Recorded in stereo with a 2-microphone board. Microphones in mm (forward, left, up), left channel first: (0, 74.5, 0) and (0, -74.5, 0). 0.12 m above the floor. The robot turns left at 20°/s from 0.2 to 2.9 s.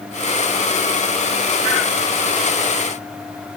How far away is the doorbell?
I don't hear a doorbell.